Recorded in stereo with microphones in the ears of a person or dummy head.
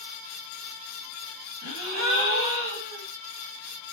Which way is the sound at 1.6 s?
60° right (ahead or behind).